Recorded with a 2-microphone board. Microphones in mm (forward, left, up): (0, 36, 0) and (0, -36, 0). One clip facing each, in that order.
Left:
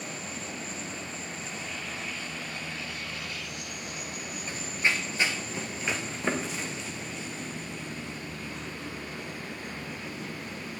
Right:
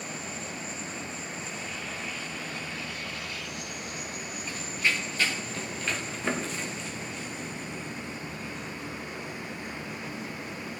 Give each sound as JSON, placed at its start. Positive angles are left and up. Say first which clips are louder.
{"t": 4.5, "sound": "running footsteps", "louder": "left 1 dB", "side_deg": 30, "distance_m": 1.8}